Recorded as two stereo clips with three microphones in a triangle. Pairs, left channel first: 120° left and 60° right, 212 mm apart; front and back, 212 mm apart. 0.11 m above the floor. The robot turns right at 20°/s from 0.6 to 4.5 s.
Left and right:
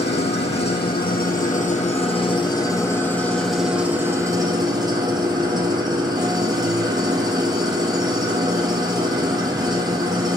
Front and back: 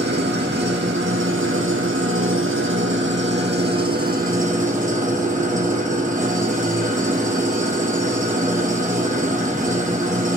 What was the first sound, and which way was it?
An engine running, 150° left.